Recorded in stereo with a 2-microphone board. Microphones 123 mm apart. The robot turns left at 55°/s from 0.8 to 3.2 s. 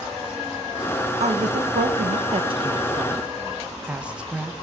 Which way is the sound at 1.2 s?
60° right (ahead or behind).